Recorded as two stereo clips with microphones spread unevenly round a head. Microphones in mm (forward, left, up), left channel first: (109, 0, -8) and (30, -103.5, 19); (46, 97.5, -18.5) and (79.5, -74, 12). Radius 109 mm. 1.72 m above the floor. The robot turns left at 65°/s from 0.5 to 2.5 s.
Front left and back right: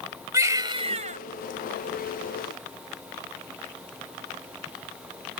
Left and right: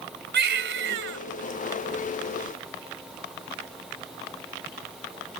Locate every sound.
0.3 s a baby crying: 65° right; by 1.2 s 110° right